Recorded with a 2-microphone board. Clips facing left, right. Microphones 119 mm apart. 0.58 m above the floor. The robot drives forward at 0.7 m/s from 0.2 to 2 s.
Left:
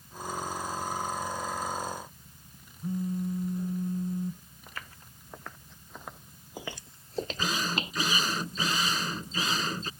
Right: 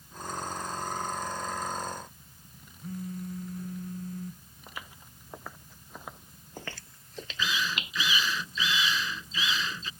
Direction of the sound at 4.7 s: 10° right (ahead or behind).